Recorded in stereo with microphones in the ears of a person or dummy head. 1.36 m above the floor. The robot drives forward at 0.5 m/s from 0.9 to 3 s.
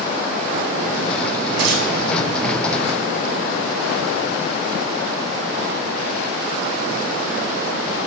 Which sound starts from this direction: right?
Tearing paper, at 1.6 s.